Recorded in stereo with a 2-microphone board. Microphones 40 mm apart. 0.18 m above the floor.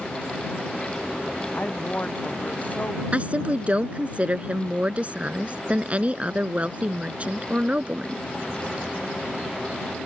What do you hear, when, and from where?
1.6 s a woman speaking: 45° left (ahead or behind)
3.1 s a woman speaking: 35° right (ahead or behind)